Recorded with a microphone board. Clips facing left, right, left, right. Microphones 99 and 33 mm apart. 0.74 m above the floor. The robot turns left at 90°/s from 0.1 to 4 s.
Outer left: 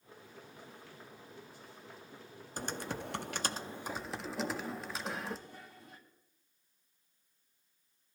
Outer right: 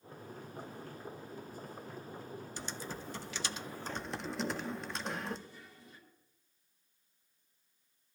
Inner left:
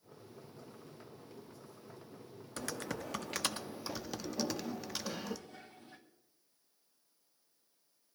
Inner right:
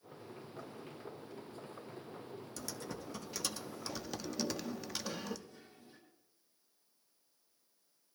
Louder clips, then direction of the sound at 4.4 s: Outer left 1 dB, inner left 2 dB; 55° left (ahead or behind).